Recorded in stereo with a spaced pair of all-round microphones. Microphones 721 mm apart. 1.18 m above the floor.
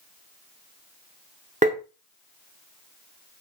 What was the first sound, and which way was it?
Tapping, 10° right (ahead or behind).